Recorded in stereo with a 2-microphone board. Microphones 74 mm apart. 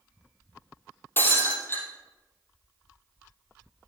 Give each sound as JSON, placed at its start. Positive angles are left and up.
{"t": 1.2, "sound": "breaking glass", "side_deg": 30, "distance_m": 3.0}